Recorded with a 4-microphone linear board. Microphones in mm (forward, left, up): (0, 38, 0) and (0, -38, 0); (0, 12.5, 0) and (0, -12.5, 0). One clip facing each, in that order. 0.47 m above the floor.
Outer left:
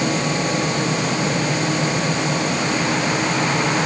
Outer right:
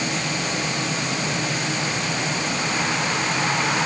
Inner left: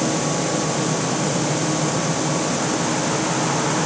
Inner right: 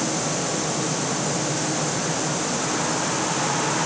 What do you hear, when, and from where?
Only background noise.